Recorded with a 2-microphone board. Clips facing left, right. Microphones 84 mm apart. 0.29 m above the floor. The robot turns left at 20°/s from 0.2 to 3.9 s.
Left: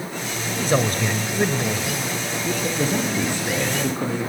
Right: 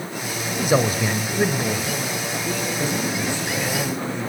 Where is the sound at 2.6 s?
45° left (ahead or behind), 7.5 m; by 4.2 s 70° left (ahead or behind), 7.5 m.